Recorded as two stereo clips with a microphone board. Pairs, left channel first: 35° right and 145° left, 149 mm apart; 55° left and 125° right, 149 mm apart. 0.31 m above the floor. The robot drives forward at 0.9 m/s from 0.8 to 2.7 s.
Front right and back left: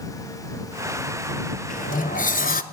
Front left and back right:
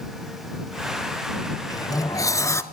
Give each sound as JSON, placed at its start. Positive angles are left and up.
{"t": 1.7, "sound": "a sliding door", "azimuth_deg": -10, "distance_m": 1.8}